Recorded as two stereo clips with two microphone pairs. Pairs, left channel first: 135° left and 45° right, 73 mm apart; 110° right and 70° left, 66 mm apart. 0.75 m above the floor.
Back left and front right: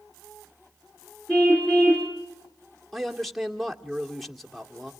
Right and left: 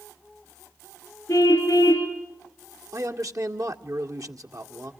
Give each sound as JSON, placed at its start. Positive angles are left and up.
{"t": 1.3, "sound": "a car horn", "azimuth_deg": -150, "distance_m": 6.0}
{"t": 2.9, "sound": "a man speaking", "azimuth_deg": 45, "distance_m": 2.0}